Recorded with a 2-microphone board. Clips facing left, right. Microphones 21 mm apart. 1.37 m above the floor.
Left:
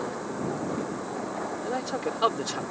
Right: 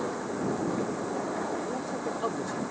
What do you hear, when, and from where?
1.6 s a man speaking: 60° left (ahead or behind)